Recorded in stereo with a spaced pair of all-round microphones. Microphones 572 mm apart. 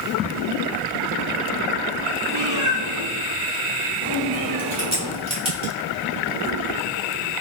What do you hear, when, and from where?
2.3 s a cat meowing: 65° right (ahead or behind), 1.5 m
4.8 s a crack: 10° right (ahead or behind), 1.1 m